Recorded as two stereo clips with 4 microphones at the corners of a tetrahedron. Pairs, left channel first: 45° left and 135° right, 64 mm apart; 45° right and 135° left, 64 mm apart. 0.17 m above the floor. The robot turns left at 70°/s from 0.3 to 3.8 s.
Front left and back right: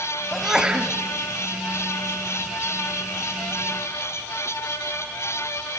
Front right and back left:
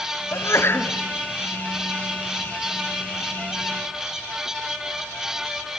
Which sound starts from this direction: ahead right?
A sneeze, at 0.3 s.